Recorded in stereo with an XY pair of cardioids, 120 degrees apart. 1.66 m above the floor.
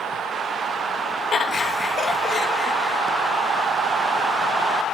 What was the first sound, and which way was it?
Laughter, 40° left.